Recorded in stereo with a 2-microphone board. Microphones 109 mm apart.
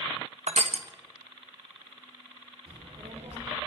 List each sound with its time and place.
0.5 s crushing: 75° right (ahead or behind), 1.5 m
2.7 s a child speaking: 70° right (ahead or behind), 3 m